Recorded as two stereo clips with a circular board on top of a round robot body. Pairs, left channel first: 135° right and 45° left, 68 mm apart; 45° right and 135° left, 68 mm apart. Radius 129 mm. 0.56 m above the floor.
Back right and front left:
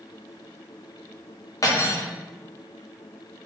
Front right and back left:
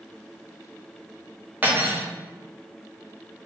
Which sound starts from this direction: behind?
Cutlery clinking, at 1.6 s.